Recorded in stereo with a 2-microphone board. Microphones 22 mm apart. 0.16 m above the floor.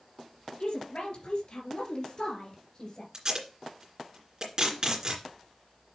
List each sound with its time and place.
0.6 s a woman speaking: 65° left (ahead or behind), 3 m; by 3.0 s 40° left (ahead or behind), 2.5 m
3.1 s tape being pulled: 35° right (ahead or behind), 2.5 m